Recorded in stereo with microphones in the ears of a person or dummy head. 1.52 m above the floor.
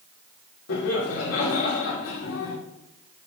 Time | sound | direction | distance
0.7 | laughter | 80° left | 2.5 m